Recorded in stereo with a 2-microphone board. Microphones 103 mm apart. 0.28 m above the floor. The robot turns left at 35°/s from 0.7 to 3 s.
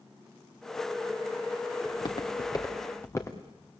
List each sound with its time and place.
1.9 s footsteps: 50° left (ahead or behind), 2.5 m; by 3.4 s 30° left (ahead or behind), 3 m